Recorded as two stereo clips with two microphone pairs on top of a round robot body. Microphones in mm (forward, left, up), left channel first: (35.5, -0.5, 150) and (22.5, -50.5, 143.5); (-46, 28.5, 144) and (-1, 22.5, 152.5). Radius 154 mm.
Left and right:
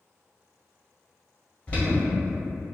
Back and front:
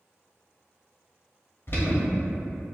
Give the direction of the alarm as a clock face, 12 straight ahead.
7 o'clock.